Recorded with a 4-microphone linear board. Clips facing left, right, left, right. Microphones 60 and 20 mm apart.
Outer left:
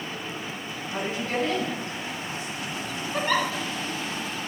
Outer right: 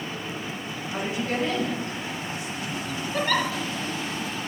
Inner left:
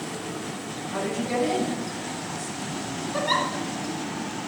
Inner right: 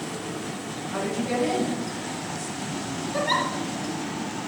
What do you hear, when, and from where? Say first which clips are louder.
0.9 s a woman speaking: even, even; 15° right (ahead or behind), 5.5 m
3.1 s a giggle: even, even; 20° left (ahead or behind), 1.8 m